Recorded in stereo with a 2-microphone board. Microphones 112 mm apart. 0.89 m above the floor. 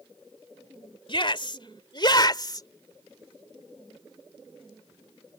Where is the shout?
50° left (ahead or behind); by 2.7 s 35° left (ahead or behind).